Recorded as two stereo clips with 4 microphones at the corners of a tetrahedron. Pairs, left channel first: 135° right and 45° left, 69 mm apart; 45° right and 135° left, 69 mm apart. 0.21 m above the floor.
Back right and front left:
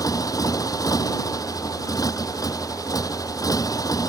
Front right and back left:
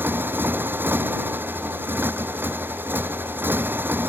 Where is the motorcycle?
165° right.